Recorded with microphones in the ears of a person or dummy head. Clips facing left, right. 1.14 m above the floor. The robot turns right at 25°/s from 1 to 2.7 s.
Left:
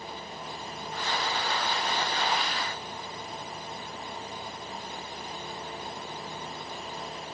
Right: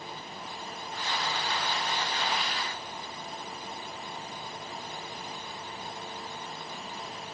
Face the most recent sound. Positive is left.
No sound to turn to.